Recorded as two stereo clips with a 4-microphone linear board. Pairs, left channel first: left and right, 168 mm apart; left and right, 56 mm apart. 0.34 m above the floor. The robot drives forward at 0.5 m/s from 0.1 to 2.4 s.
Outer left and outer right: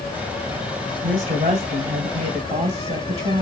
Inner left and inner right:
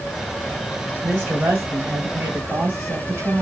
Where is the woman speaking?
35° right (ahead or behind), 1.6 m; by 3.4 s 30° right (ahead or behind), 1.9 m.